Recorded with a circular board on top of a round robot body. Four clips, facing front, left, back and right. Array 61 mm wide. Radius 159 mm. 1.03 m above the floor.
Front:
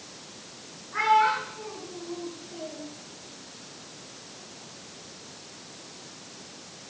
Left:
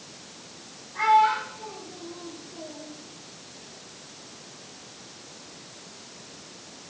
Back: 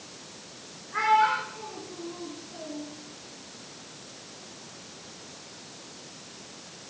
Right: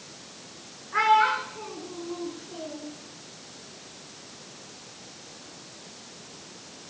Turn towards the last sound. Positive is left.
turn(degrees=-85)